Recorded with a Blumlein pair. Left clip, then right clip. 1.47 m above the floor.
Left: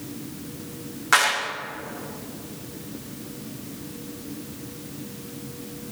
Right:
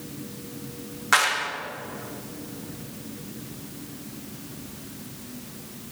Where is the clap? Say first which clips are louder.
Left 1 dB; straight ahead, 1.8 m.